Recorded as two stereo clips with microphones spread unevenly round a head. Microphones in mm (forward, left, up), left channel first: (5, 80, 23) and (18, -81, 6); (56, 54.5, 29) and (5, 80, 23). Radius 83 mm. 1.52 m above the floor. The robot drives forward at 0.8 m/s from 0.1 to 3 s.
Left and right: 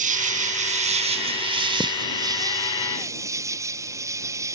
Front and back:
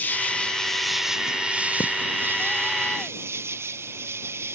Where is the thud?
5° right.